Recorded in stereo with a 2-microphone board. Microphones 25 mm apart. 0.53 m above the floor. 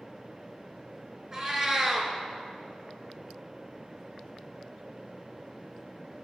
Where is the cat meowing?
20° right (ahead or behind), 1.0 m.